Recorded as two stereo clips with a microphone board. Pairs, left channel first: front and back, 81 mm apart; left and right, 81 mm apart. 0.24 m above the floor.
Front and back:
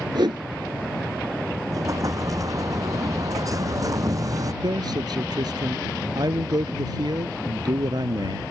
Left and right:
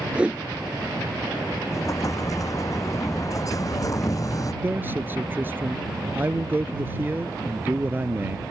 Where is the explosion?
135° left.